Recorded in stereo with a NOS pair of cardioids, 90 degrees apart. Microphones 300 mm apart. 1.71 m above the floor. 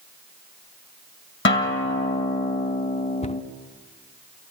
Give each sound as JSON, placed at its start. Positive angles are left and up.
{"t": 1.4, "sound": "a guitar", "azimuth_deg": 45, "distance_m": 2.0}
{"t": 3.2, "sound": "a cupboard door", "azimuth_deg": 25, "distance_m": 0.7}